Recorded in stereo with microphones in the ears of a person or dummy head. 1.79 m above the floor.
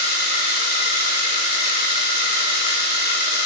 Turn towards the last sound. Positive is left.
turn(degrees=55)  # may be behind; listen again after turning